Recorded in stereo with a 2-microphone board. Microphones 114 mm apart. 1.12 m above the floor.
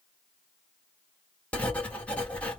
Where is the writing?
15° left (ahead or behind), 1.3 m.